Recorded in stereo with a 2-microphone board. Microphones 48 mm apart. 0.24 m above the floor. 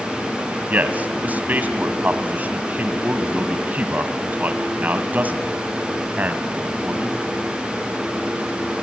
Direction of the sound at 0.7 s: 35° right (ahead or behind).